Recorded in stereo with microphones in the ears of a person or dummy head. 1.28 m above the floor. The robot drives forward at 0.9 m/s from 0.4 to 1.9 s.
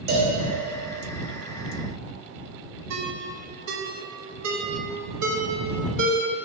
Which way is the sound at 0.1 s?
55° right (ahead or behind).